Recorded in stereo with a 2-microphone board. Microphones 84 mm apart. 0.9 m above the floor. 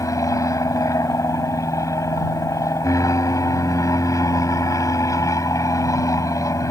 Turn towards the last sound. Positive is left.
turn(degrees=45)  # may be behind; listen again after turning